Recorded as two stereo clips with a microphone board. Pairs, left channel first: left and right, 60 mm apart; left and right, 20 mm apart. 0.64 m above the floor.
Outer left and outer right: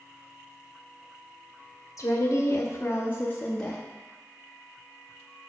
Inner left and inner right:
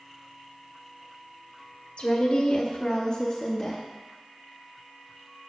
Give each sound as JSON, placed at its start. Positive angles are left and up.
{"t": 2.0, "sound": "a woman speaking", "side_deg": 55, "distance_m": 1.3}